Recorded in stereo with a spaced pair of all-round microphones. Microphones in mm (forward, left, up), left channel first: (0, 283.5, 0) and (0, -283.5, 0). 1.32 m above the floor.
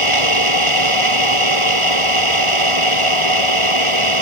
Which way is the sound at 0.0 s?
55° right (ahead or behind).